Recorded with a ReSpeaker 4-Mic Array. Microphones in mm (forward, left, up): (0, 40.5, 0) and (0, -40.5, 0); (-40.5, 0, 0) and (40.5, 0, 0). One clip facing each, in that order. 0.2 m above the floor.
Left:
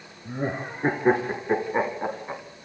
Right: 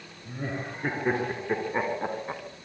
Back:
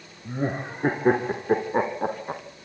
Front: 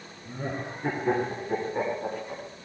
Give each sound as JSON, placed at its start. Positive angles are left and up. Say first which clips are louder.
{"t": 0.2, "sound": "laughter", "louder": "left 5 dB, back 5 dB", "azimuth_deg": 140, "distance_m": 3.0}